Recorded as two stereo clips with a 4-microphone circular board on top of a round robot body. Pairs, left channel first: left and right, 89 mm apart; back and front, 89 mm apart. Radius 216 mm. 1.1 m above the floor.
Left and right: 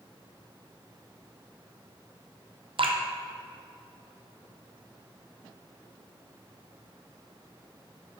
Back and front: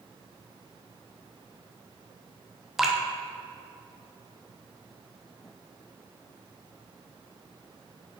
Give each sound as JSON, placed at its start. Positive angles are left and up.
{"t": 2.8, "sound": "dripping", "azimuth_deg": -85, "distance_m": 1.3}